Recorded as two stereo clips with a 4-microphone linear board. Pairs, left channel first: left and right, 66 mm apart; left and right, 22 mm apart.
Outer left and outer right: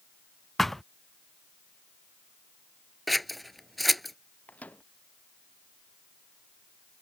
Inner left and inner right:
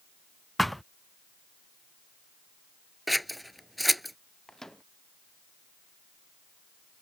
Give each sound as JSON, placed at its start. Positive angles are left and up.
{"t": 0.6, "sound": "a thud", "side_deg": 5}
{"t": 3.1, "sound": "scissors", "side_deg": 0}
{"t": 4.5, "sound": "a microwave", "side_deg": 25}